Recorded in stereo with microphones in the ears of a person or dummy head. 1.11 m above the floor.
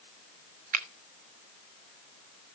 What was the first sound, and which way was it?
A finger snap, 55° right (ahead or behind).